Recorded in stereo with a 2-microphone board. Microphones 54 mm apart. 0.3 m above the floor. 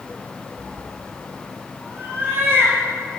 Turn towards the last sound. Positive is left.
turn(degrees=-50)  # may be behind; listen again after turning